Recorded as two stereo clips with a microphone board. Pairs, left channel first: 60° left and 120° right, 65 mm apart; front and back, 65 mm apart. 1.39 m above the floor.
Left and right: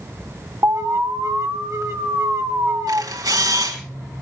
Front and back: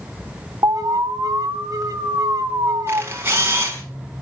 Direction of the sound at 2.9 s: 125° right.